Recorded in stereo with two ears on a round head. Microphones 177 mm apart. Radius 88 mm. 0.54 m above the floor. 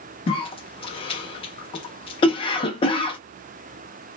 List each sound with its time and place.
0.3 s a cough: 25° left (ahead or behind), 0.7 m